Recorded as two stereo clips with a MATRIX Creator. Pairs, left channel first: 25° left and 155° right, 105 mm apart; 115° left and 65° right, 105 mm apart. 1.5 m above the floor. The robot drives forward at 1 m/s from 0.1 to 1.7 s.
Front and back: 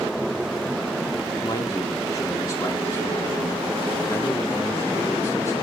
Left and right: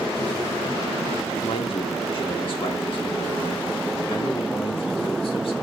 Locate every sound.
1.4 s a man speaking: 75° left, 2.0 m; by 5.5 s 80° left, 1.9 m